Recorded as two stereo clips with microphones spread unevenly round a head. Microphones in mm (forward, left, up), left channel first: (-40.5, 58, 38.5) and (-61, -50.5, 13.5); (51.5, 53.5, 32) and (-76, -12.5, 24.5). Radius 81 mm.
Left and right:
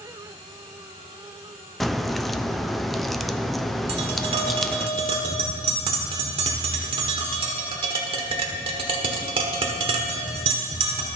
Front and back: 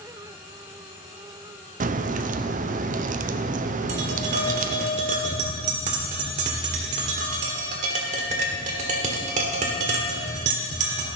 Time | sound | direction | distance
1.8 | a crack | 170° left | 0.5 m
3.9 | tapping | 130° right | 1.3 m